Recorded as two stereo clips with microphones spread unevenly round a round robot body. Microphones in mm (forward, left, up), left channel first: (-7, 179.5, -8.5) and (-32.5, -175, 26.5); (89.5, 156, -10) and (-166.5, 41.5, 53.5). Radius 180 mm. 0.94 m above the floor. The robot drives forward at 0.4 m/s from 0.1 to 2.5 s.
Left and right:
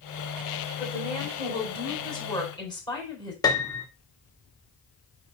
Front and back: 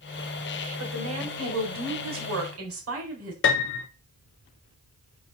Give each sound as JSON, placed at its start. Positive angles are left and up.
{"t": 0.8, "sound": "a woman speaking", "azimuth_deg": 160, "distance_m": 3.5}
{"t": 3.4, "sound": "a piano", "azimuth_deg": 10, "distance_m": 0.7}